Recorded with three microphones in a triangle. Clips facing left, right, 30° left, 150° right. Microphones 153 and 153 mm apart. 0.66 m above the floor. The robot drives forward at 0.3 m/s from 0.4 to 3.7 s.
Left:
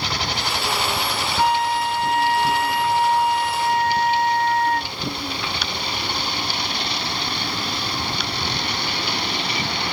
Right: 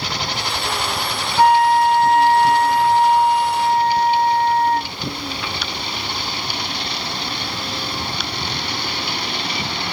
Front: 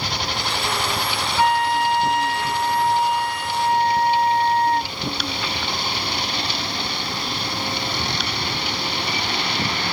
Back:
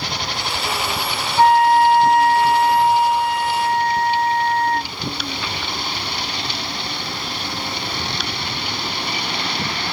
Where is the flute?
105° right, 0.6 m; by 4.9 s 150° right, 1.0 m.